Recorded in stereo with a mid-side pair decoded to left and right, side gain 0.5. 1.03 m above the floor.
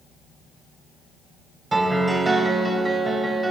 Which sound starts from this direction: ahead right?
A piano, at 1.7 s.